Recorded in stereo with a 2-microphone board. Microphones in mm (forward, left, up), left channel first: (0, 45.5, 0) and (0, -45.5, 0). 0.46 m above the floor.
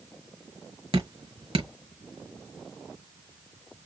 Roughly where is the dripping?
Right.